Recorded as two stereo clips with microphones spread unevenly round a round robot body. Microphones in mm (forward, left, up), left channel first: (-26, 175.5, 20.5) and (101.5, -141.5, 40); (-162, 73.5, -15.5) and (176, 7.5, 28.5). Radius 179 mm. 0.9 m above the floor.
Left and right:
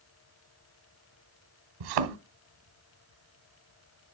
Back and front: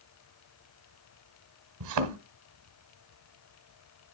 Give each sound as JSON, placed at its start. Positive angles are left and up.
{"t": 1.8, "sound": "a thud", "azimuth_deg": -50, "distance_m": 1.4}